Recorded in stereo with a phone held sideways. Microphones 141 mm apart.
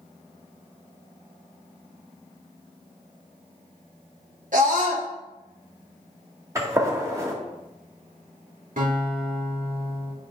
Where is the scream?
65° right (ahead or behind), 3 m.